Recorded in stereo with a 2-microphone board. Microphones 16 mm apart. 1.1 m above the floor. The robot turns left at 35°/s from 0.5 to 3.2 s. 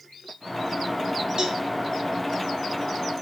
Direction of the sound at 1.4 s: 50° right (ahead or behind).